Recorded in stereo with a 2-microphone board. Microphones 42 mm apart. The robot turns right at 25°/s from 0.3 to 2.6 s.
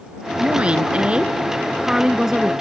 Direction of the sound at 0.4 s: 70° right.